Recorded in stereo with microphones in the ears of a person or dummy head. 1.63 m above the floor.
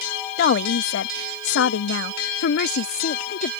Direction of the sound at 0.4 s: 60° left (ahead or behind).